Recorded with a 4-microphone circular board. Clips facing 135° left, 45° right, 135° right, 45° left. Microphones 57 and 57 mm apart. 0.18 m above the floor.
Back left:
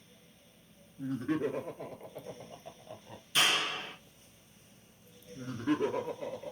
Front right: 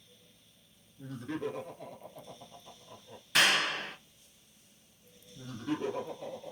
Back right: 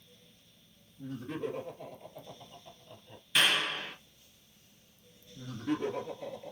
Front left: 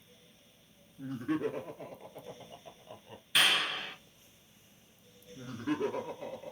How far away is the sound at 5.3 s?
About 2 m.